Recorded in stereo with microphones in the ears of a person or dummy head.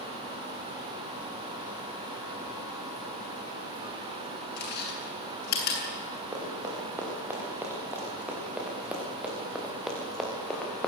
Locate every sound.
4.6 s chewing: 60° left (ahead or behind), 8 m
6.3 s running footsteps: 15° right (ahead or behind), 8 m; by 10.9 s 5° left (ahead or behind), 6 m